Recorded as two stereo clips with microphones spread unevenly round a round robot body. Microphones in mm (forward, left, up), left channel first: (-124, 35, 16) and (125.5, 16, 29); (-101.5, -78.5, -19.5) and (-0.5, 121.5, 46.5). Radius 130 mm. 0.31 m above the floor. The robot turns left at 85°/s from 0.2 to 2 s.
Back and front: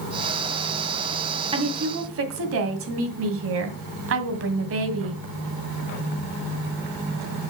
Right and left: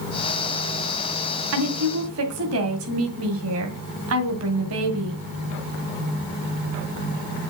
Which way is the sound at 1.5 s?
65° left.